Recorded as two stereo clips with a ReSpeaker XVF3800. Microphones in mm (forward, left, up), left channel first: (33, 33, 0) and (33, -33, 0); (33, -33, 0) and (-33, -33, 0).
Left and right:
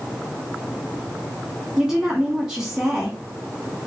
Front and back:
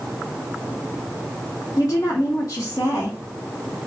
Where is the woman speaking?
10° right, 1.8 m.